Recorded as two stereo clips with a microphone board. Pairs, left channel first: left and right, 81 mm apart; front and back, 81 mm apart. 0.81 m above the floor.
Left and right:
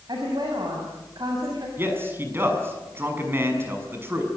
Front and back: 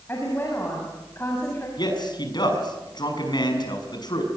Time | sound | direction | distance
0.1 | a woman speaking | 60° right | 6.5 m
1.8 | a man speaking | 30° right | 6.5 m